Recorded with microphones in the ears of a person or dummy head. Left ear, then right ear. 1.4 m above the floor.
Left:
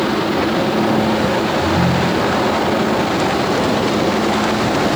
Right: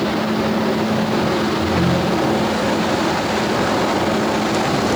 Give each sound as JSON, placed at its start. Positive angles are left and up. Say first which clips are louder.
{"t": 1.6, "sound": "a ringtone", "louder": "left 2 dB", "side_deg": 25}